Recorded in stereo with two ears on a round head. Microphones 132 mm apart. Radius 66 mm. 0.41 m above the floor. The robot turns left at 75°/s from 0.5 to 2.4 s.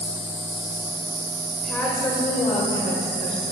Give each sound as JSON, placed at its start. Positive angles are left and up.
{"t": 0.0, "sound": "an insect", "azimuth_deg": 5, "distance_m": 3.5}
{"t": 1.6, "sound": "a woman speaking", "azimuth_deg": 175, "distance_m": 1.6}